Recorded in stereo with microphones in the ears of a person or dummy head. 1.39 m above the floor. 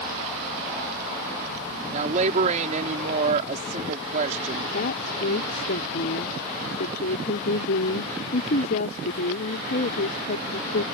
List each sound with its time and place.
1.9 s a woman speaking: 50° right (ahead or behind)
4.7 s a woman speaking: 60° left (ahead or behind)